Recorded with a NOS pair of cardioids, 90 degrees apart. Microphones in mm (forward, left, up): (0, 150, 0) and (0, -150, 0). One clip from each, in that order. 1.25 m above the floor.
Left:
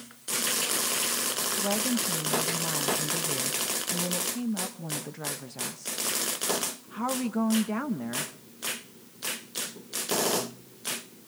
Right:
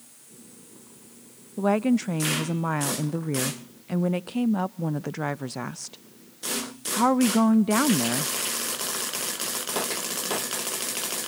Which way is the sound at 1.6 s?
50° right.